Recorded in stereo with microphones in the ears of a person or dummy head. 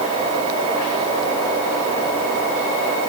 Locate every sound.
Only background noise.